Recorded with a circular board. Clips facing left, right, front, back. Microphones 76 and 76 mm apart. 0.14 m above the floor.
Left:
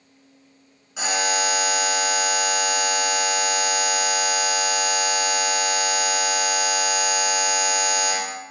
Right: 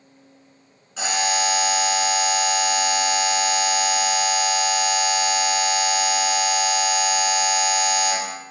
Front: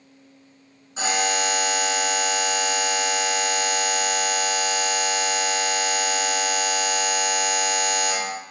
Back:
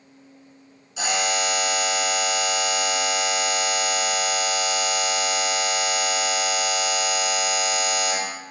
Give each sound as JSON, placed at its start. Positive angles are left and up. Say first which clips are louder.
{"t": 1.0, "sound": "a buzzer", "louder": "right 1 dB, front 1 dB", "azimuth_deg": 15, "distance_m": 1.8}